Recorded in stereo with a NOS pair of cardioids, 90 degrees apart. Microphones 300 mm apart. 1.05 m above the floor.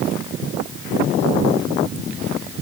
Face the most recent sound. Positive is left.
No sound to turn to.